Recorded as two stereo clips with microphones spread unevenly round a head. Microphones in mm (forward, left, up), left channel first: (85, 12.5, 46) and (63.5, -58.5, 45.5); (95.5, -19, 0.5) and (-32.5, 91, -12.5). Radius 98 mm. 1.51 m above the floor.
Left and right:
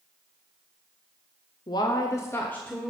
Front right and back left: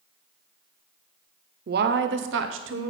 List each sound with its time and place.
1.7 s a woman speaking: 110° left, 0.6 m; by 2.9 s 155° left, 1.0 m